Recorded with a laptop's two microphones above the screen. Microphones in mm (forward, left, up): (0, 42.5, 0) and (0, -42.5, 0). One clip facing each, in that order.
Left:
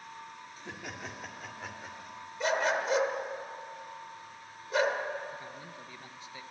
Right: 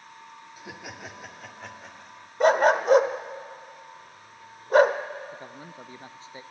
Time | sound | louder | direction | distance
0.6 | laughter | right 2 dB | 10° right (ahead or behind) | 2 m
2.4 | a dog barking | right 10 dB | 50° right (ahead or behind) | 1.2 m
5.3 | a man speaking | right 2 dB | 30° right (ahead or behind) | 0.6 m